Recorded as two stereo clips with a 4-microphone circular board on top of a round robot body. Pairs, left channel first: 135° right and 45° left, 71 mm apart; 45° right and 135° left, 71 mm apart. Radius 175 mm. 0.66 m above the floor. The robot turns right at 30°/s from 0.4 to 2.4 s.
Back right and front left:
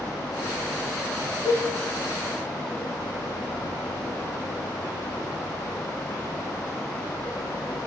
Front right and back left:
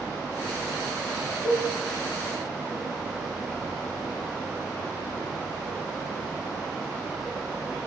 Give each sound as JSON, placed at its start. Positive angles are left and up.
{"t": 1.4, "sound": "a cowbell", "azimuth_deg": 110, "distance_m": 0.8}